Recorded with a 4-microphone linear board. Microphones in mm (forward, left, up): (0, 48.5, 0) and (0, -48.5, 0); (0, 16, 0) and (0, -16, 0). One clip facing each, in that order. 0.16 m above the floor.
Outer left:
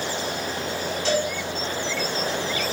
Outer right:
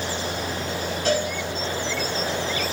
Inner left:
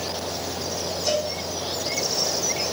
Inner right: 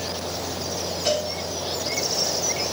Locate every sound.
1.1 s a cowbell: 50° right (ahead or behind), 4.5 m